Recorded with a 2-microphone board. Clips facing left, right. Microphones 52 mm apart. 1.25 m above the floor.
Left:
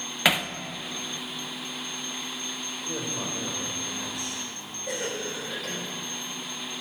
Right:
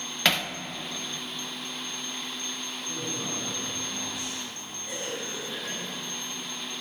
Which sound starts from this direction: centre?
Hammering, at 0.2 s.